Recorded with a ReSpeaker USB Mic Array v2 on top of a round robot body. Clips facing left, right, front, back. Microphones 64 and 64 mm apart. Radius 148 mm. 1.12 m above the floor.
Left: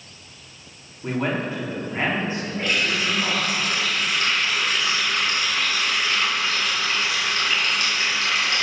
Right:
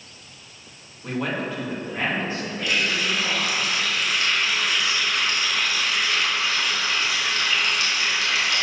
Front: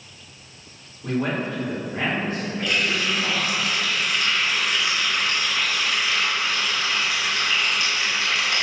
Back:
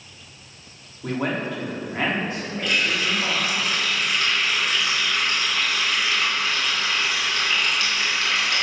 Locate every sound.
1.0 s a man speaking: 155° left, 3.5 m
2.6 s a running tap: 140° left, 3 m